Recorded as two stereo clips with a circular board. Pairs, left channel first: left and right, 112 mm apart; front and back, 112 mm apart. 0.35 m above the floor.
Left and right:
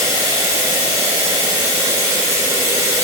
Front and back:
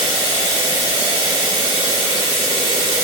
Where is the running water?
150° right, 0.8 m.